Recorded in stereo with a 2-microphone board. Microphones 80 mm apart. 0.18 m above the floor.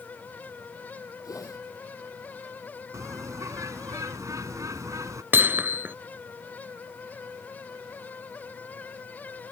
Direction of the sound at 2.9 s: 45° right (ahead or behind).